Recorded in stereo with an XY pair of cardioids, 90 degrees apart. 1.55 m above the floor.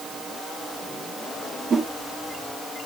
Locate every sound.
1.7 s a whoosh: 50° right, 1.7 m